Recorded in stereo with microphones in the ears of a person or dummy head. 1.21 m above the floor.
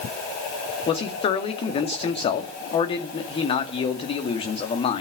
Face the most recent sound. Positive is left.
turn(degrees=35)  # may be behind; listen again after turning